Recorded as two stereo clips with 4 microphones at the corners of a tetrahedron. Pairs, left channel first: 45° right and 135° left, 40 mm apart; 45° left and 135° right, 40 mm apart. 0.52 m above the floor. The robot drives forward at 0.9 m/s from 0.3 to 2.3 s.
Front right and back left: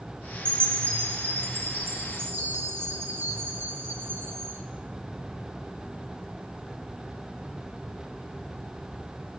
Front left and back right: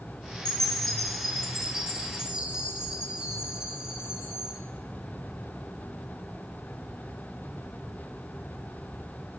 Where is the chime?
115° left, 1.3 m; by 4.6 s 150° left, 2.5 m.